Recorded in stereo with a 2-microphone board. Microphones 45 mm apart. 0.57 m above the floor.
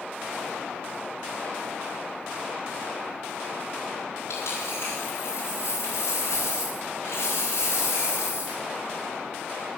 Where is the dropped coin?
70° left (ahead or behind), 6 m.